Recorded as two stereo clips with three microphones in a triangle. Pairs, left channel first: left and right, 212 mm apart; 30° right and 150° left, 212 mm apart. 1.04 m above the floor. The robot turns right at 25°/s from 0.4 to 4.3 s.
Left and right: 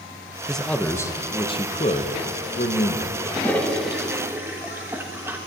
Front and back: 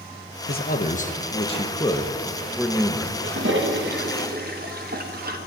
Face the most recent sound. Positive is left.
turn(degrees=-170)